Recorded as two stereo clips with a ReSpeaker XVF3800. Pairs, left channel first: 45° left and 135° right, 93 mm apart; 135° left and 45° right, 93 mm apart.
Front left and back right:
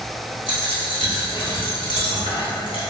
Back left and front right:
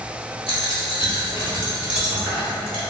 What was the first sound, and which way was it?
A dropped coin, 30° left.